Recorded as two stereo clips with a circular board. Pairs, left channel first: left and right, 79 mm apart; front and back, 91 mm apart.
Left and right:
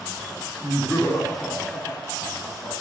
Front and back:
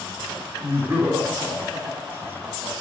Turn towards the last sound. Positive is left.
turn(degrees=120)